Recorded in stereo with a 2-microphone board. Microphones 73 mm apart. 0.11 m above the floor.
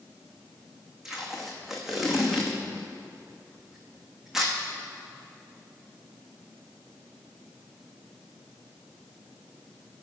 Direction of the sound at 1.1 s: 5° right (ahead or behind).